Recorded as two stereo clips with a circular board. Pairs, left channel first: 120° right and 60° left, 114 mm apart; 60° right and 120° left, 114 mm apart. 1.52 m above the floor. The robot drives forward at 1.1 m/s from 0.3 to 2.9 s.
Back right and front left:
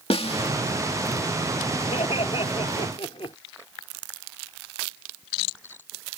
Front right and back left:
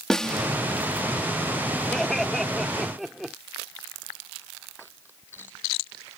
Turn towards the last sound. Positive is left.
turn(degrees=-155)